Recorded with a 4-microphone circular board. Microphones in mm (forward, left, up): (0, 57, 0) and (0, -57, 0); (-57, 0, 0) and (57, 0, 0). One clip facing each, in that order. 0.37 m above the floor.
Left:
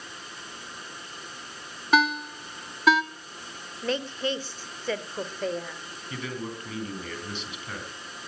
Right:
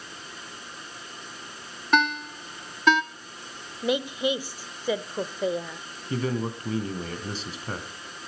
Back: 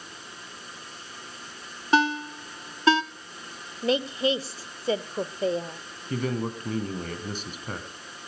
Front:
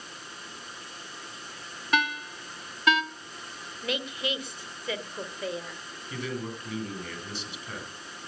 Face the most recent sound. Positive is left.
turn(degrees=-140)